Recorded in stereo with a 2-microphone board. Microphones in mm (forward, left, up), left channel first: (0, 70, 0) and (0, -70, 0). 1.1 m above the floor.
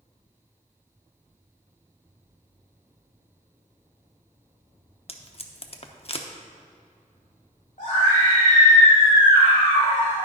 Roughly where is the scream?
Left.